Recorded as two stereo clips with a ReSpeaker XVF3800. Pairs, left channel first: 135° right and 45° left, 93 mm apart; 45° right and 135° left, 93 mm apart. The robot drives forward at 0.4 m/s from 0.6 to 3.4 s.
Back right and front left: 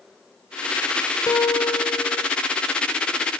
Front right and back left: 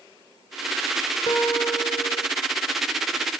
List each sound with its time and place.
1.3 s a guitar: 85° right, 2 m; by 2.3 s 95° right, 2 m